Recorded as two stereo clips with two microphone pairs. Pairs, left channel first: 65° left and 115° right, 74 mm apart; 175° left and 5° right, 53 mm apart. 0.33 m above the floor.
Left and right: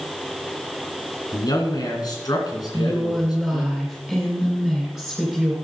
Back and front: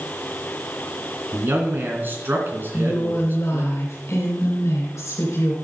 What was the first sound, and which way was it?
A man speaking, 40° left.